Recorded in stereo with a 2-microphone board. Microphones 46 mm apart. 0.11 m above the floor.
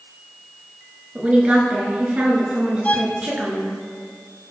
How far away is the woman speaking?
About 1.4 m.